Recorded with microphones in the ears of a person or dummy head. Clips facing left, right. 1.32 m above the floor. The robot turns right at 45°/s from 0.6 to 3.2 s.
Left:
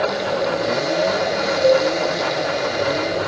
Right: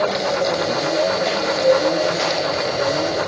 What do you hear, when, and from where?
1.6 s dishes clattering: 50° left (ahead or behind), 1.6 m; by 1.9 s 35° left (ahead or behind), 1.6 m